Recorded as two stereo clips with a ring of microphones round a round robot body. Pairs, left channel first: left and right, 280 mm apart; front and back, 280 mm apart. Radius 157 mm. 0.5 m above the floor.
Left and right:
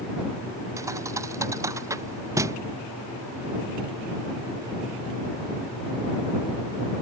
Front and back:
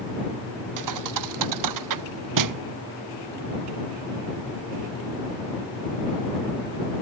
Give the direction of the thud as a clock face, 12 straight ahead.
6 o'clock.